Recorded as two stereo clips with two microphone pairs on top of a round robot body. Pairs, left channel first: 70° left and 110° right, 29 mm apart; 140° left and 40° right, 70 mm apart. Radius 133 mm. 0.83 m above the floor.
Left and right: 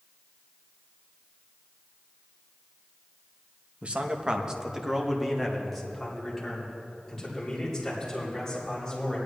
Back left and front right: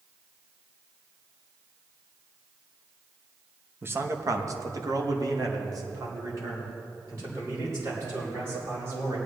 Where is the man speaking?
85° right, 1.2 m; by 9.2 s straight ahead, 5.5 m.